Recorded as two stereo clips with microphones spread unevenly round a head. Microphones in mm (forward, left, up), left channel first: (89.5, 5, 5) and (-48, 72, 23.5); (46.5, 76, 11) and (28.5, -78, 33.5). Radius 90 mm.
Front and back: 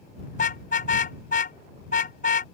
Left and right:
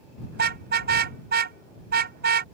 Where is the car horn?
80° right.